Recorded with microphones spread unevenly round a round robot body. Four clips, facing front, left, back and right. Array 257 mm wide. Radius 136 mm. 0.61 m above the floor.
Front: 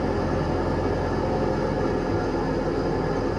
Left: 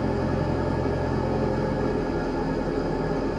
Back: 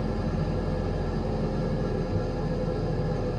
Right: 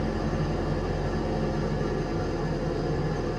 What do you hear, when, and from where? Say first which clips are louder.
0.0 s an engine running: left 4 dB, front 6 dB; 20° left, 1.0 m